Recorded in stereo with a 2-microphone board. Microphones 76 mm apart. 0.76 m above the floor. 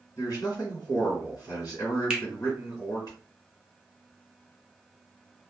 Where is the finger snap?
10° right (ahead or behind), 0.7 m.